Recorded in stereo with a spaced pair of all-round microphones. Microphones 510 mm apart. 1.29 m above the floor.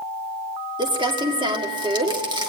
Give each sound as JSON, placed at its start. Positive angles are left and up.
{"t": 0.8, "sound": "crumpling", "side_deg": -10, "distance_m": 1.5}